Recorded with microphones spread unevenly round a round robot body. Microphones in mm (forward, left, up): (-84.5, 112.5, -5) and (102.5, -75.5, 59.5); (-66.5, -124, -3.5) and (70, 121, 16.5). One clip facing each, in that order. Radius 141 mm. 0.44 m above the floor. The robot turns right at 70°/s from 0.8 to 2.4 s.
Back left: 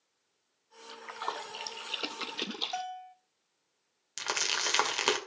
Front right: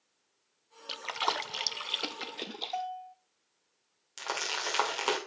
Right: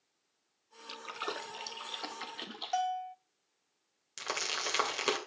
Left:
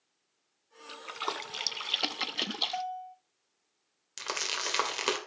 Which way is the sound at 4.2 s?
145° left.